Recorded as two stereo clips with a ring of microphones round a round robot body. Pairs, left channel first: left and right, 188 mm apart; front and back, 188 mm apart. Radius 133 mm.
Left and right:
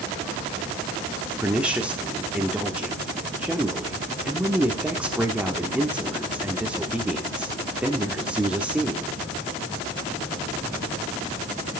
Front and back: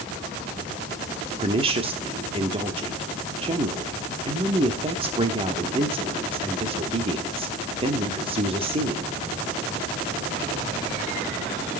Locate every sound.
1.4 s a woman speaking: 170° right, 1.0 m